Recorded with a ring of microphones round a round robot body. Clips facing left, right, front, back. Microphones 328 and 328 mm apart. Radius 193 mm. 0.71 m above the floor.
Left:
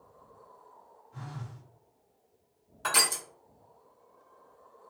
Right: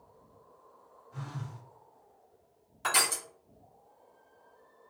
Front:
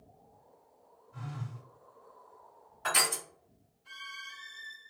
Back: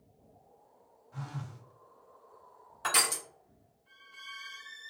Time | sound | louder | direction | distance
1.1 | a phone buzzing | right 2 dB, even | 160° right | 0.9 m
2.8 | crushing | left 1 dB, front 1 dB | 175° right | 1.2 m